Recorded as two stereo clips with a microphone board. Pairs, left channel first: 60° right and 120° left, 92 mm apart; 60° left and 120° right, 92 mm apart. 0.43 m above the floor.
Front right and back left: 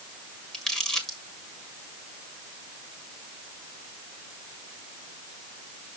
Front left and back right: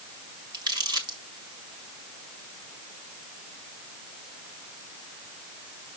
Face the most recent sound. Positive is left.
turn(degrees=-140)